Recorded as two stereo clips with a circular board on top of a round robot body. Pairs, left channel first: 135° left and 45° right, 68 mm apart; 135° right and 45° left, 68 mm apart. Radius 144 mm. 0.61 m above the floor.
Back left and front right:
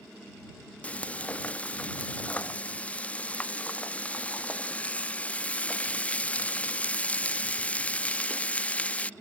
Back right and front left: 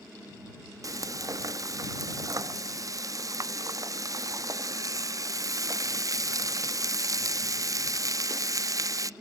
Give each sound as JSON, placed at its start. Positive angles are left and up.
{"t": 0.8, "sound": "frying", "azimuth_deg": 65}